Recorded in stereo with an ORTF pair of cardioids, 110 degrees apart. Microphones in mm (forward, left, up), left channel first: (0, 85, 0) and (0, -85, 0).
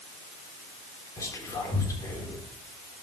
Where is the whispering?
20° left, 3.5 m.